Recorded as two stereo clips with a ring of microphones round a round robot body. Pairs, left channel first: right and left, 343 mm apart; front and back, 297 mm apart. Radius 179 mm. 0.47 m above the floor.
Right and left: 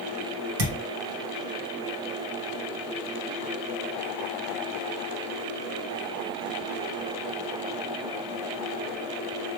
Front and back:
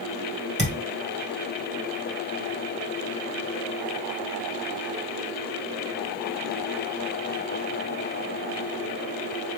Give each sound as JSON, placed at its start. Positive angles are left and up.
{"t": 0.6, "sound": "a thud", "azimuth_deg": 110, "distance_m": 1.9}